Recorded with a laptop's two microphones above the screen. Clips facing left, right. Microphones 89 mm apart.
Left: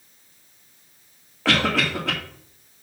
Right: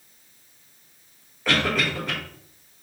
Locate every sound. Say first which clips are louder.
1.4 s a cough: left 2 dB; 80° left, 1.9 m